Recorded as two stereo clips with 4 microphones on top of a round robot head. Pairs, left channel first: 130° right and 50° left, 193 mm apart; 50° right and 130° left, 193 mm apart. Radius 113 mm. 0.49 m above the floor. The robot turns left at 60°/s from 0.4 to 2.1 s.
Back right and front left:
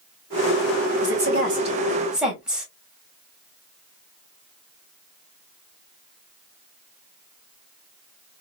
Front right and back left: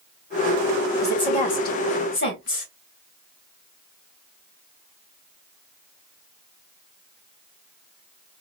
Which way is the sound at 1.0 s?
30° left.